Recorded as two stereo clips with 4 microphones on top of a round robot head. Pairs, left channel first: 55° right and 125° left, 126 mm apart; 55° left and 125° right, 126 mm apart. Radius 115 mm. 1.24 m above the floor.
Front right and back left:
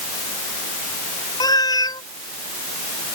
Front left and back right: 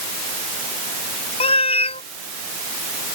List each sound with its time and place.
1.4 s a cat meowing: 10° left